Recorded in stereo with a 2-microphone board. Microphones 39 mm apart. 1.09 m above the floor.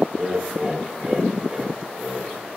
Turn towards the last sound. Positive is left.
turn(degrees=-25)  # may be behind; listen again after turning